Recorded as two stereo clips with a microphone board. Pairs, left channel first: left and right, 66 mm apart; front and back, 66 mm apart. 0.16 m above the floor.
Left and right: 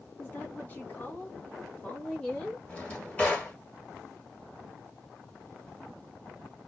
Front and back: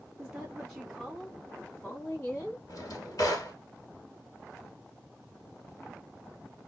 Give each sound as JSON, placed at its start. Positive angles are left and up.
{"t": 0.2, "sound": "a woman speaking", "azimuth_deg": 110, "distance_m": 1.6}
{"t": 2.7, "sound": "a drawer", "azimuth_deg": 25, "distance_m": 1.5}